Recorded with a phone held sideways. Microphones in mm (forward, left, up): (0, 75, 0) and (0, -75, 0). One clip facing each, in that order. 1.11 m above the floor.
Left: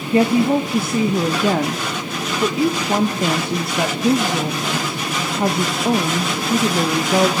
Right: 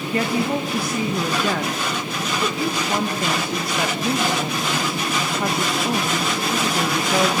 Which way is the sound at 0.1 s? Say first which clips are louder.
Left 7 dB; 25° left (ahead or behind).